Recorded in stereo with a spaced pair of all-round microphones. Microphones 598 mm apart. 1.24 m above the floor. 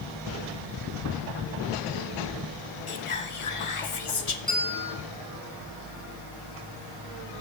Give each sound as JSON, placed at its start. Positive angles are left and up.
{"t": 2.9, "sound": "whispering", "side_deg": 55, "distance_m": 0.7}
{"t": 4.5, "sound": "a bell", "side_deg": -25, "distance_m": 3.0}